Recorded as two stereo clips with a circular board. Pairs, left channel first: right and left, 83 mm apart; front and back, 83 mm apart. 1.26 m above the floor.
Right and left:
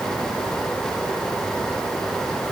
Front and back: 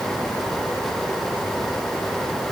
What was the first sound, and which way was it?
Only background noise.